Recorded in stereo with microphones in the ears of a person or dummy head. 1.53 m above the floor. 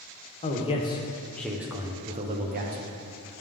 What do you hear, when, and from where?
0.4 s a man speaking: 30° left (ahead or behind), 1.0 m; by 3.4 s 70° right (ahead or behind), 1.0 m